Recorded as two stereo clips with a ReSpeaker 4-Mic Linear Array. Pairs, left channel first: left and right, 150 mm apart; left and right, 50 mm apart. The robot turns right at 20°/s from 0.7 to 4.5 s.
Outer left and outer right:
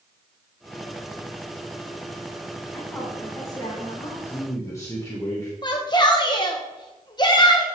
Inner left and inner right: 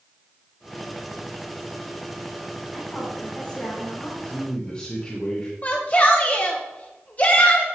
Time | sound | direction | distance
2.7 | a woman speaking | 5° left (ahead or behind) | 2.5 m
4.2 | a man speaking | 15° left (ahead or behind) | 1.2 m
5.6 | a shout | 30° left (ahead or behind) | 0.7 m